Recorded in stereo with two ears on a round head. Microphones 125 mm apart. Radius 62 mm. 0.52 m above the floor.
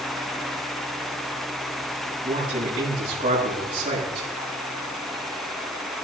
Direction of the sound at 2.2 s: 45° right (ahead or behind).